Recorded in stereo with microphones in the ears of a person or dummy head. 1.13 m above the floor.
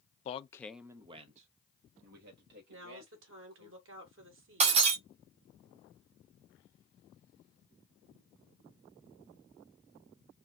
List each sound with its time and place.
0.2 s a man speaking: 40° left (ahead or behind), 0.6 m; by 3.7 s 65° right (ahead or behind), 2.5 m
2.7 s a woman speaking: 65° right (ahead or behind), 1.3 m
4.6 s breaking glass: 30° right (ahead or behind), 0.8 m